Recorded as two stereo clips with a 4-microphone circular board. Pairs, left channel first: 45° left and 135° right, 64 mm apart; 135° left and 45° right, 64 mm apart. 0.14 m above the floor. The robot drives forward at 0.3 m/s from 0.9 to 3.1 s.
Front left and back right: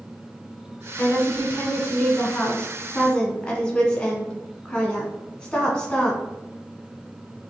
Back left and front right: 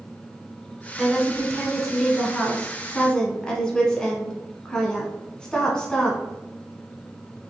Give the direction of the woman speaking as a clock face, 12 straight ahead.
11 o'clock.